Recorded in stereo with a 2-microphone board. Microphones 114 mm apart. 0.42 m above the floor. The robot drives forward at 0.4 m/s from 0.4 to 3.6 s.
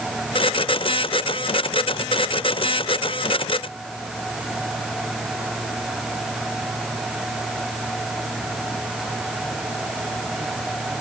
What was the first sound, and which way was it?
Only background noise.